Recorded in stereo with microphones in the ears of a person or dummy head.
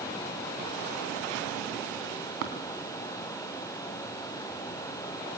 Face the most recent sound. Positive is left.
turn(degrees=-60)  # may be behind; listen again after turning